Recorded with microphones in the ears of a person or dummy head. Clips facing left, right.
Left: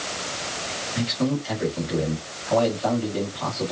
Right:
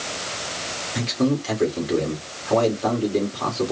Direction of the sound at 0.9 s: 45° right (ahead or behind).